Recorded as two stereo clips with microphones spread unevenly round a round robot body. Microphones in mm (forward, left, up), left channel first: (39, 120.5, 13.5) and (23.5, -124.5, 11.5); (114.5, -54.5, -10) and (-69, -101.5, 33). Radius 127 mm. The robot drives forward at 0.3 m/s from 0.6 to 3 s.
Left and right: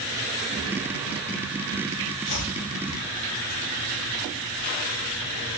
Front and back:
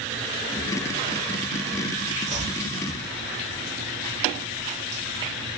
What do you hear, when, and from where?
2.3 s chopping: 125° left, 1.5 m; by 2.6 s 130° left, 1.6 m